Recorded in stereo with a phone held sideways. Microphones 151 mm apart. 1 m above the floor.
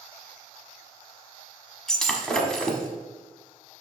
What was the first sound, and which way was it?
Breaking glass, 5° left (ahead or behind).